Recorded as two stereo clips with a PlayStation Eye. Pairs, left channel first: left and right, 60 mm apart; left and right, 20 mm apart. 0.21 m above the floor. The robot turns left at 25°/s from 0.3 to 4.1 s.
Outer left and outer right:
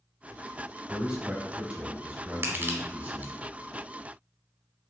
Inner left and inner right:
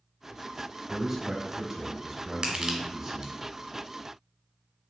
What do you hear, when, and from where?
0.9 s a man speaking: 15° right (ahead or behind), 1.2 m; by 3.3 s 25° right (ahead or behind), 1.2 m
2.4 s crushing: 40° right (ahead or behind), 1.0 m; by 3.3 s 30° right (ahead or behind), 1.0 m